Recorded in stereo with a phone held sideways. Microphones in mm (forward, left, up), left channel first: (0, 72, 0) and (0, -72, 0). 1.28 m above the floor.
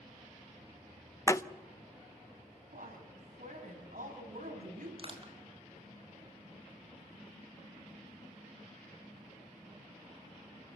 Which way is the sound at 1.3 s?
20° left (ahead or behind).